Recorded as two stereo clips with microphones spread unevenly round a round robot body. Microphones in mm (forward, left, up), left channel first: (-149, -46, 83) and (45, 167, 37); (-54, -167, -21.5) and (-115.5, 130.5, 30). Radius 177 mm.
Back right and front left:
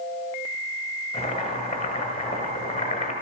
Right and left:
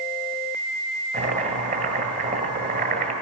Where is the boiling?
160° left, 1.7 m.